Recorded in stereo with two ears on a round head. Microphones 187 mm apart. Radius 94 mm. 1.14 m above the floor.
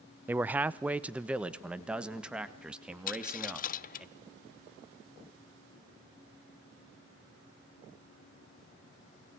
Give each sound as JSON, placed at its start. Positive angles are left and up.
{"t": 0.3, "sound": "a man speaking", "side_deg": -10, "distance_m": 0.6}
{"t": 3.1, "sound": "a dropped coin", "side_deg": 45, "distance_m": 0.7}